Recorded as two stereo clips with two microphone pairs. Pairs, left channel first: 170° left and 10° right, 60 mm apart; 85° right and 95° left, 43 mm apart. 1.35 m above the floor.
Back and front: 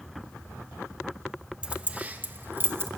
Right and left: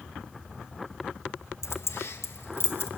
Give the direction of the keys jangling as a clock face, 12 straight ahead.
3 o'clock.